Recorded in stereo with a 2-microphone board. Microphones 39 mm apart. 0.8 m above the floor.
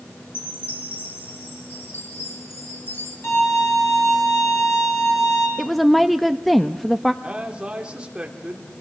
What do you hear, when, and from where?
0.3 s a chime: 70° left (ahead or behind), 5.5 m
3.2 s a violin: 85° left, 6 m
5.6 s a woman speaking: 5° left (ahead or behind), 0.7 m
7.2 s a man speaking: 25° right (ahead or behind), 3 m